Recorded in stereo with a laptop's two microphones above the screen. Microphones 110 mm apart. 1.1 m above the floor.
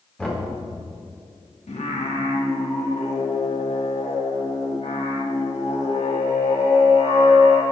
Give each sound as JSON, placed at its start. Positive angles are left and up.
{"t": 0.2, "sound": "knocking", "side_deg": 10, "distance_m": 3.5}
{"t": 1.7, "sound": "singing", "side_deg": 75, "distance_m": 1.4}